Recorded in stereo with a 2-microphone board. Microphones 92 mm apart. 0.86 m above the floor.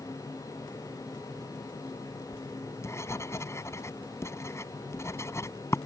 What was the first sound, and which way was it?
Writing, 30° left (ahead or behind).